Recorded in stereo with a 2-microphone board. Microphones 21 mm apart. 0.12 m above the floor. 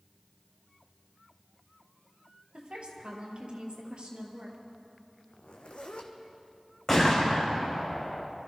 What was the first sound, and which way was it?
A woman speaking, 60° right (ahead or behind).